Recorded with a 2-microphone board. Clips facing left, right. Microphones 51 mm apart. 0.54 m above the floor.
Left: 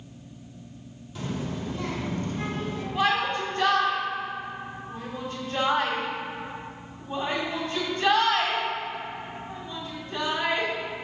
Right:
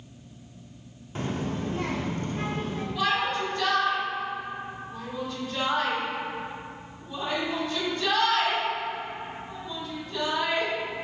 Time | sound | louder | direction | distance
1.1 | a child speaking | right 2 dB | 40° right (ahead or behind) | 0.7 m
3.0 | a shout | left 2 dB | 35° left (ahead or behind) | 1.9 m